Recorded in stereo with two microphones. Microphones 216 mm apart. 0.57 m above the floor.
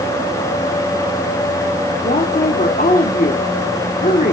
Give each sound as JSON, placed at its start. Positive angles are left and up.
{"t": 2.0, "sound": "a woman speaking", "side_deg": 40, "distance_m": 1.5}